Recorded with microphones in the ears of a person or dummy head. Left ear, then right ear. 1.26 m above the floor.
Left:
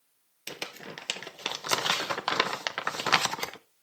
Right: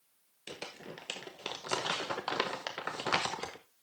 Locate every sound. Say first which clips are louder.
0.5 s crumpling: left 6 dB; 40° left (ahead or behind), 0.6 m